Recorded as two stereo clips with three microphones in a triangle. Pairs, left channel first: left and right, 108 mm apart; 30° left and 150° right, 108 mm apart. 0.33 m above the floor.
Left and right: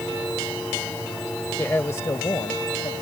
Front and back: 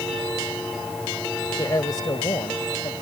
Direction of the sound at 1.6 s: 35° left.